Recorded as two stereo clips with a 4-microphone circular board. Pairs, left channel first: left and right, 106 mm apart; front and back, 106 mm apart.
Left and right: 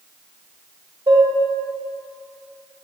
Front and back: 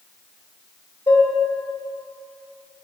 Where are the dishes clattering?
45° right, 1.3 m.